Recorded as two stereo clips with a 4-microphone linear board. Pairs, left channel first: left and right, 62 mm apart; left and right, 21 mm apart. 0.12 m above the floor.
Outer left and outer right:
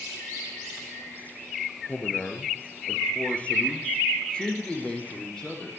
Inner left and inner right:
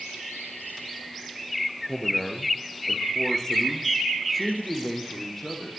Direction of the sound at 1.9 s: 35° left (ahead or behind).